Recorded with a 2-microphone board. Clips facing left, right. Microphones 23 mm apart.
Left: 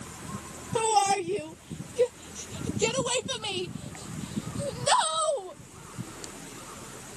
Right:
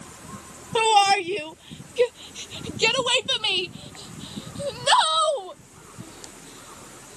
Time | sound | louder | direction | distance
0.8 | a shout | right 6 dB | 65° right (ahead or behind) | ?